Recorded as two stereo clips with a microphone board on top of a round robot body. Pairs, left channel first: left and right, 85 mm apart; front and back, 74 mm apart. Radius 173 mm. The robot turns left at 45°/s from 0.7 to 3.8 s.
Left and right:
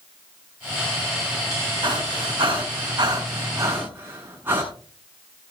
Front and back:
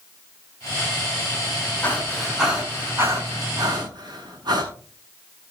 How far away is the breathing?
About 7 m.